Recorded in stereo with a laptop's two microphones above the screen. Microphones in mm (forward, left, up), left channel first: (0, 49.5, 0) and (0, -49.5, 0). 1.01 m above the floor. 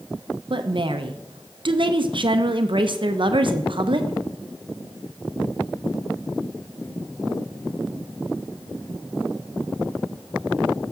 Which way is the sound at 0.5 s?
55° right (ahead or behind).